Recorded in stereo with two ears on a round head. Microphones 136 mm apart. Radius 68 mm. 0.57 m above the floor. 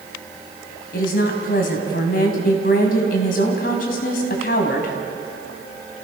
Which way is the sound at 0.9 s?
65° left (ahead or behind).